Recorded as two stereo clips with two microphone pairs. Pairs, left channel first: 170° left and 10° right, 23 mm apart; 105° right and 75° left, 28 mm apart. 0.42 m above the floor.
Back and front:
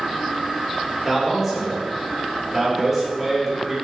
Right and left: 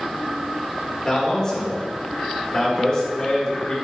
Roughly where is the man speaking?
Right.